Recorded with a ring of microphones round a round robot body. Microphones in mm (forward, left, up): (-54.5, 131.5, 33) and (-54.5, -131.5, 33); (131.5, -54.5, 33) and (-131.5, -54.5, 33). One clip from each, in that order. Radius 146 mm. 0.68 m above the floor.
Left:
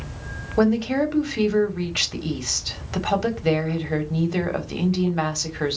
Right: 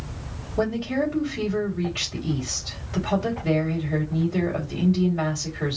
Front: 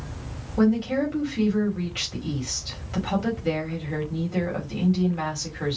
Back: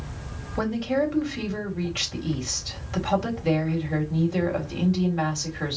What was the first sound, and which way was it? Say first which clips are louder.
A woman speaking: left 4 dB, front 1 dB; 100° left.